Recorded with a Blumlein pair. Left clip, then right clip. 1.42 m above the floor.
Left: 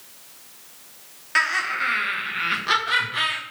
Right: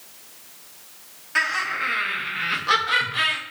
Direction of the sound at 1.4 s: 65° left.